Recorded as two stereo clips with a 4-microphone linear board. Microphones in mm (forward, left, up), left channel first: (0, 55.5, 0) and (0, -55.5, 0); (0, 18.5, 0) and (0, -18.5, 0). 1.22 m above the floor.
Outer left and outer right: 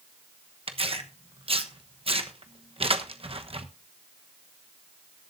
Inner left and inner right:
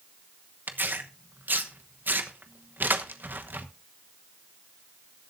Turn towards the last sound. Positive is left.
turn(degrees=-60)  # may be behind; listen again after turning